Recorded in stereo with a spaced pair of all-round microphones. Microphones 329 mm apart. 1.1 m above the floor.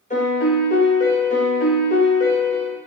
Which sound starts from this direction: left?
A piano, at 0.1 s.